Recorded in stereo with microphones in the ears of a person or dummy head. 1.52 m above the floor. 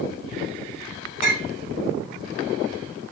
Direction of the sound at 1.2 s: 45° left (ahead or behind).